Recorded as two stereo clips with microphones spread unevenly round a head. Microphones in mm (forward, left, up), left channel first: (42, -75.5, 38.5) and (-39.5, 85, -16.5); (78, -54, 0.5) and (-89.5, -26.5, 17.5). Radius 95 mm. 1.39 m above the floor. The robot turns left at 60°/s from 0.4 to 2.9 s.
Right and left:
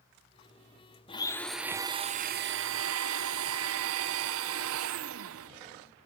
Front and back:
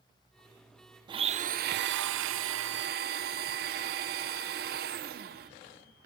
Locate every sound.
1.1 s a blender: 125° right, 0.6 m; by 5.5 s 125° left, 0.6 m